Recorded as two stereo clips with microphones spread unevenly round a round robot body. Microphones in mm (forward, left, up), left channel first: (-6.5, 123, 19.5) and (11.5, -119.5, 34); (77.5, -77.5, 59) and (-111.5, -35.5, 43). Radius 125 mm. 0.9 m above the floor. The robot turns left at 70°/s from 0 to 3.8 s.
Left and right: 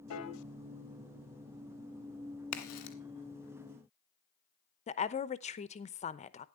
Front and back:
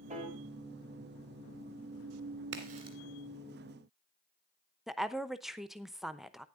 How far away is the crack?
About 2 m.